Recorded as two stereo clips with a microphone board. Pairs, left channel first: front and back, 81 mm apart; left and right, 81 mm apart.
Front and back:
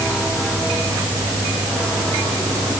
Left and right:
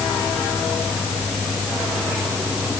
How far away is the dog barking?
No dog barking in this recording.